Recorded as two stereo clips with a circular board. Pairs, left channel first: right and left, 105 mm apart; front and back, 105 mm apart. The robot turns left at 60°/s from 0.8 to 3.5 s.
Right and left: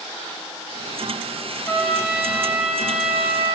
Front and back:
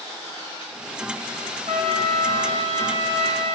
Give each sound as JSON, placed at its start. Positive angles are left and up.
{"t": 1.7, "sound": "a trumpet", "azimuth_deg": -160, "distance_m": 1.2}